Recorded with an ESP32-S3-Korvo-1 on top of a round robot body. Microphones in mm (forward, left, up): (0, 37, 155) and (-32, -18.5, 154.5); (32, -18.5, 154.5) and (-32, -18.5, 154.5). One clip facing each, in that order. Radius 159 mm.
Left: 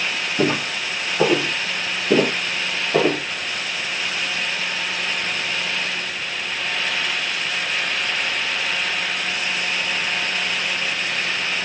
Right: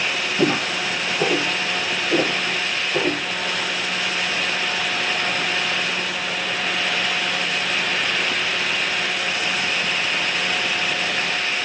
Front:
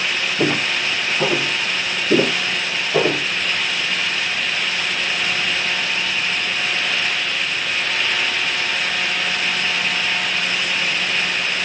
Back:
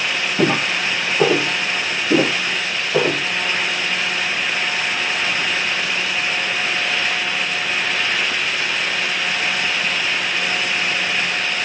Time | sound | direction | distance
0.4 | footsteps | 130° left | 1.7 m